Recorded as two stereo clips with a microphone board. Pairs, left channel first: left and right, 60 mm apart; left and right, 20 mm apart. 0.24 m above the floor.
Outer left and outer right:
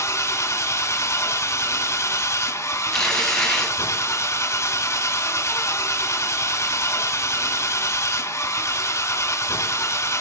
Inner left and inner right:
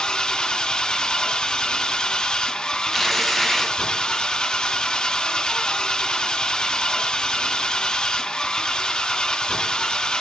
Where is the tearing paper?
10° left (ahead or behind), 1.2 m.